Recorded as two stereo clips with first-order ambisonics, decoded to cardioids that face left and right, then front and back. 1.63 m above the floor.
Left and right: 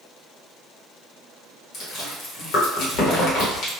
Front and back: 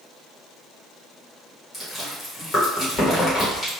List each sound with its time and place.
1.7 s chewing: 70° left, 0.9 m